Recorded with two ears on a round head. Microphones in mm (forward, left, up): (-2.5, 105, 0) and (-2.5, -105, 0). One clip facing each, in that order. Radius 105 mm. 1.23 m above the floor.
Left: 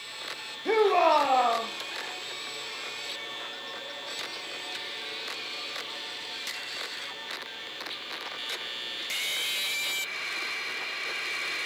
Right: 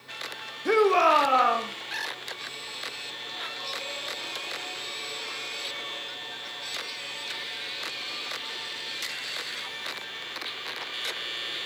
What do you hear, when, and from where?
0.7 s a shout: 15° right (ahead or behind), 1.7 m